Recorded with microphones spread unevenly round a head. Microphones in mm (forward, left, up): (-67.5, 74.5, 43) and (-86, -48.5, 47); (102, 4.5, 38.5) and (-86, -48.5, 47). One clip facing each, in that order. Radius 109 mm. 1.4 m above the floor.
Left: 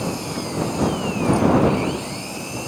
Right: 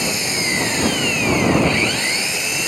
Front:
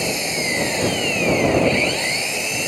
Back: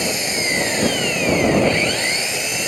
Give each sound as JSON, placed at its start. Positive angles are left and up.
{"t": 0.0, "sound": "an engine running", "azimuth_deg": -80}